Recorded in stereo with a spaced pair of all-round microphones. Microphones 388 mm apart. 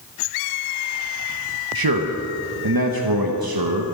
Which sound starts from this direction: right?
A man speaking, at 1.8 s.